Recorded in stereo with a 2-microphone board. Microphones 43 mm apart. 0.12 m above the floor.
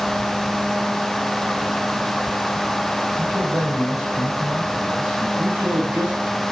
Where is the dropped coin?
I don't hear a dropped coin.